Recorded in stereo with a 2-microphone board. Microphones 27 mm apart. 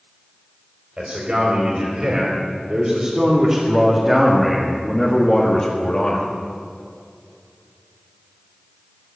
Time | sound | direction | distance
1.0 | a man speaking | 45° right (ahead or behind) | 4 m